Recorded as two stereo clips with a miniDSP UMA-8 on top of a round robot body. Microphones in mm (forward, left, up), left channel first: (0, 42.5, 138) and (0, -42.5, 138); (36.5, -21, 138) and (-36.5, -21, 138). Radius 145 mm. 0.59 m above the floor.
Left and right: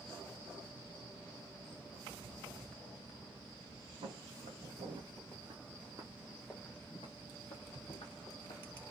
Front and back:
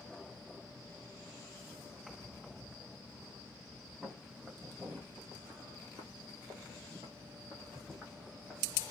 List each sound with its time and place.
4.0 s footsteps: 110° right, 1.5 m; by 8.6 s 100° left, 1.4 m